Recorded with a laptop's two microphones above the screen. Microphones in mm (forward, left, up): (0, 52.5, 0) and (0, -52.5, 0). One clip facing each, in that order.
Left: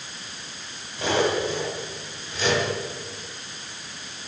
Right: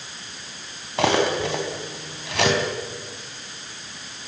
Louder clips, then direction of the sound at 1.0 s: Right 3 dB; 80° right.